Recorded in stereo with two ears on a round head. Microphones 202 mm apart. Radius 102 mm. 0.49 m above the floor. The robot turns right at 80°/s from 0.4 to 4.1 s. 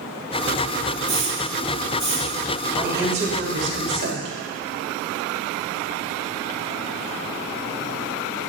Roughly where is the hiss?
Right.